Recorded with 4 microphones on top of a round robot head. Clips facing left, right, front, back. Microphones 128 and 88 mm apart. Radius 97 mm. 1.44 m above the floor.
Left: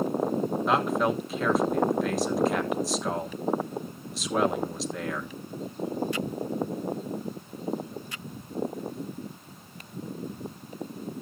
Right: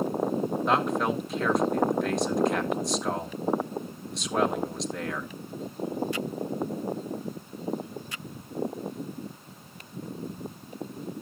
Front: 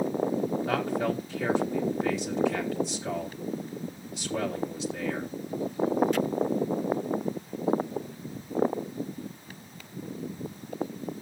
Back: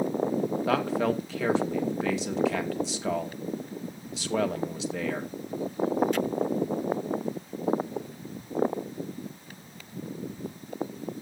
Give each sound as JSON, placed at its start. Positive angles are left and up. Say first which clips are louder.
{"t": 0.7, "sound": "a man speaking", "louder": "left 1 dB, back 2 dB", "azimuth_deg": 180, "distance_m": 2.0}